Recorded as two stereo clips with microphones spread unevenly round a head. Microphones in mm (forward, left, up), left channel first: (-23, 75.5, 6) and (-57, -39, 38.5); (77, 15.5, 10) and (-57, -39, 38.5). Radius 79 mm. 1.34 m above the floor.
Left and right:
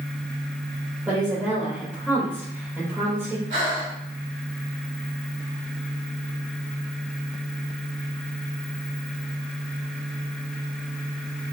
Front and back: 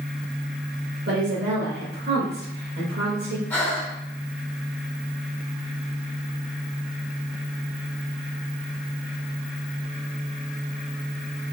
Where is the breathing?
55° right, 1.6 m.